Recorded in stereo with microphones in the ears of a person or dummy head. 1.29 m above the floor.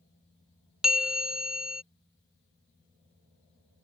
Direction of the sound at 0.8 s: Centre (ahead or behind).